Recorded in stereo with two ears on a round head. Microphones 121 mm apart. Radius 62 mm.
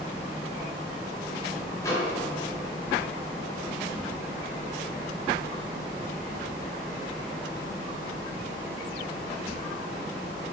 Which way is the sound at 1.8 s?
20° left (ahead or behind).